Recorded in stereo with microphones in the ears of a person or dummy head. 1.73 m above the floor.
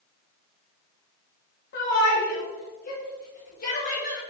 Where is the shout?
60° left (ahead or behind), 1.3 m; by 4.2 s 40° left (ahead or behind), 2.5 m.